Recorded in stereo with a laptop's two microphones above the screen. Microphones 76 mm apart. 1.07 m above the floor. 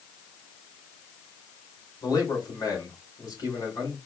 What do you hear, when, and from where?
2.0 s a man speaking: 60° left (ahead or behind), 3.5 m